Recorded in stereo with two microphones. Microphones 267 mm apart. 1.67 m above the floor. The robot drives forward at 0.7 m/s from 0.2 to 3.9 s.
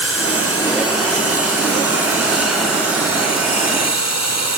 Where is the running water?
55° left (ahead or behind), 6.5 m; by 4.6 s 75° left (ahead or behind), 5.5 m.